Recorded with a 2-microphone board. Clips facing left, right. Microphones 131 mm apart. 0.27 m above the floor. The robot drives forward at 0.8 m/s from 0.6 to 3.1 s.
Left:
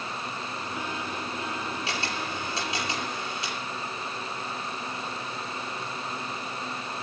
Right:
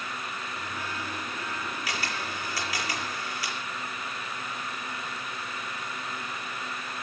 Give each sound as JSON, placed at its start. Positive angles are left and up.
{"t": 1.9, "sound": "a camera shutter", "side_deg": 25, "distance_m": 6.0}